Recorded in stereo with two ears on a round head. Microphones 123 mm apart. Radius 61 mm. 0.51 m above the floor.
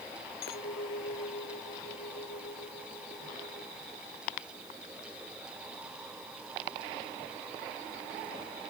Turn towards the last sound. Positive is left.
turn(degrees=80)